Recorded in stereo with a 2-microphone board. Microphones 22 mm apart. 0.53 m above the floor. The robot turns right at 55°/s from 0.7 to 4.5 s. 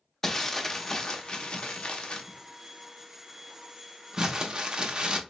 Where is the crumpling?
15° left (ahead or behind), 0.8 m; by 5.2 s 35° right (ahead or behind), 0.8 m.